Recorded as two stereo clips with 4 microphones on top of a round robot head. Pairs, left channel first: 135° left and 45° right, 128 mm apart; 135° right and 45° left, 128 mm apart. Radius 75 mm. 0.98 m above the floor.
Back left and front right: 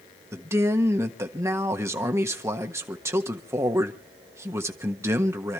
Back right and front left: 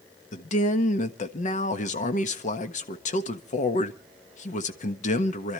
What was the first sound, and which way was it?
A man speaking, 115° right.